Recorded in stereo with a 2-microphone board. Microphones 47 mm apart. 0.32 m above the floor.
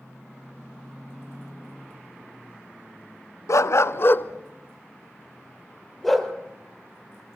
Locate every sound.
3.5 s a dog barking: 80° left, 0.9 m; by 6.3 s centre (ahead or behind), 2.5 m